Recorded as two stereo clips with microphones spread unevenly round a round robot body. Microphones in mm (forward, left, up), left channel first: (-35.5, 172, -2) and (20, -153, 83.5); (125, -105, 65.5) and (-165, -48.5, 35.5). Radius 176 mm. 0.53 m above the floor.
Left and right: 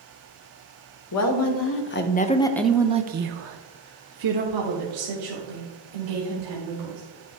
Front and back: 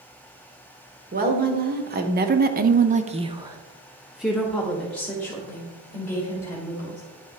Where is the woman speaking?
115° left, 1.4 m; by 7.0 s 90° right, 3 m.